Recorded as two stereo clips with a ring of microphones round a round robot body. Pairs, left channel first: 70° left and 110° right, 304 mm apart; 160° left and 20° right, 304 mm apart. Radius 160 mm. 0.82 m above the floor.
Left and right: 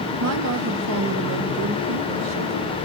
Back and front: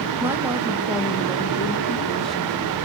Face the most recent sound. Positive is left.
turn(degrees=-115)